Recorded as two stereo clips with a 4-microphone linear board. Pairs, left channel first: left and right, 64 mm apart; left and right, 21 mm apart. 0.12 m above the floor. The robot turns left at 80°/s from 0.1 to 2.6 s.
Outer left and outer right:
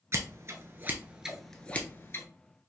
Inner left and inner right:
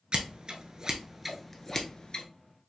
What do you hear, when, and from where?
0.1 s scissors: 50° right (ahead or behind), 0.7 m; by 2.2 s 45° left (ahead or behind), 0.7 m